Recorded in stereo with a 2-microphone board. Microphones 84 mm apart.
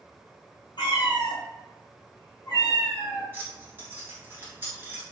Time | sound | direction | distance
0.8 | a cat meowing | 65° left (ahead or behind) | 1.3 m
3.3 | keys jangling | 25° right (ahead or behind) | 1.3 m